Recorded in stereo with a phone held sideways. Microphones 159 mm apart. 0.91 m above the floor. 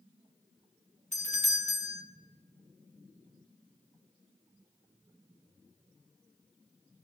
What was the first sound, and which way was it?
A doorbell, 55° left (ahead or behind).